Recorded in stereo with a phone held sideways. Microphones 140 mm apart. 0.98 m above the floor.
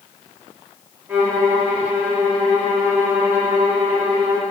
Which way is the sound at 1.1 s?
15° right (ahead or behind).